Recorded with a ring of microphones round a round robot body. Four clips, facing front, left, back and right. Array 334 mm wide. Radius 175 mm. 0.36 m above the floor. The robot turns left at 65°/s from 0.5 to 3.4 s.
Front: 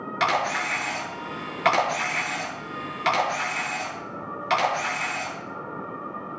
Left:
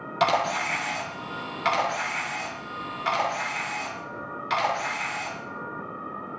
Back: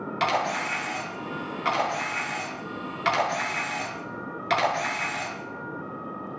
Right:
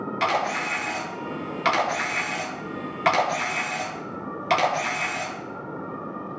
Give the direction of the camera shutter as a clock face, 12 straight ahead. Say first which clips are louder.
Left 2 dB, front 2 dB; 10 o'clock.